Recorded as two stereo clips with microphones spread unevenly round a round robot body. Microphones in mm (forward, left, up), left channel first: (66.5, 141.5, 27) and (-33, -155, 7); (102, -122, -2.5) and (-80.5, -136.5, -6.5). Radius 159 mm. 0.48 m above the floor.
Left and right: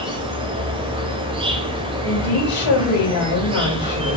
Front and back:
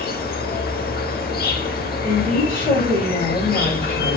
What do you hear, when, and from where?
0.0 s an insect: 35° right, 0.8 m
2.0 s a woman speaking: 65° left, 2.5 m